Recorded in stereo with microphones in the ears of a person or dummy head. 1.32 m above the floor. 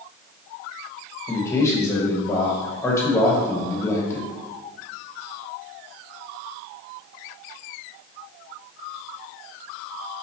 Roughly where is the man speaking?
Centre.